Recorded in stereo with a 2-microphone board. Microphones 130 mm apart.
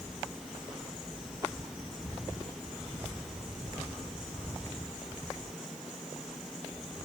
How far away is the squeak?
No squeak in this recording.